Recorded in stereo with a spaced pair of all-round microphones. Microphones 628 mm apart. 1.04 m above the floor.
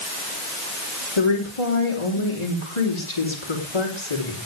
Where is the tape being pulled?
No tape being pulled in this recording.